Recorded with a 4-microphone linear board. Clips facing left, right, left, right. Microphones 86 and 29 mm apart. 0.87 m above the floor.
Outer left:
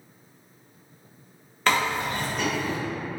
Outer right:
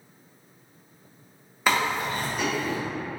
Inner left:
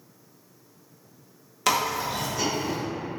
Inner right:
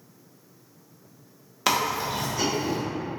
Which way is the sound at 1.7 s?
10° right (ahead or behind).